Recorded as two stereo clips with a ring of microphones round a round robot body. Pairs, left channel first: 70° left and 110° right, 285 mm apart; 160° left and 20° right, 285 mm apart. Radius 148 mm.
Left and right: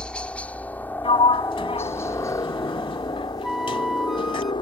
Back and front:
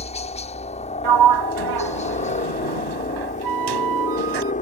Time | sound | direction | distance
0.0 | a helicopter | 150° left | ?
1.0 | a sliding door | 5° right | ?
3.4 | a flute | 25° right | ?